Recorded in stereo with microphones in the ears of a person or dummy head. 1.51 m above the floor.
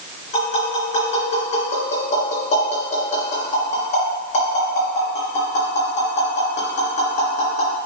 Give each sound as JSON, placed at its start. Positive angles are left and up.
{"t": 0.3, "sound": "tapping", "side_deg": 35, "distance_m": 3.5}